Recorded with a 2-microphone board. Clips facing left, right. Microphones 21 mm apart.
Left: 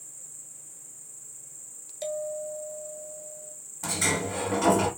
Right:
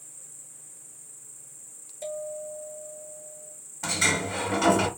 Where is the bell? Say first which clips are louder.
Left 2 dB; 50° left (ahead or behind), 1.5 m.